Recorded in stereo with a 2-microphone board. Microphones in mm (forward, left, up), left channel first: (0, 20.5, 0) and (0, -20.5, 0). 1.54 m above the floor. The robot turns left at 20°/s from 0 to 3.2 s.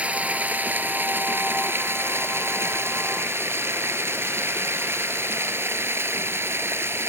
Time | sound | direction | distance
0.0 | running water | 30° right | ?